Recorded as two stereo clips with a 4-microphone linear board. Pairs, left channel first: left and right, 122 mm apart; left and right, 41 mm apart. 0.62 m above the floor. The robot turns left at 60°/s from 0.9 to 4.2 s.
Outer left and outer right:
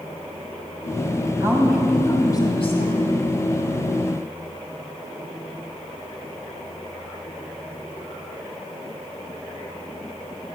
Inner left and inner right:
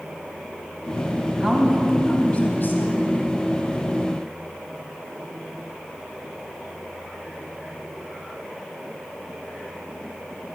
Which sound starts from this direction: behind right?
A woman speaking, at 1.4 s.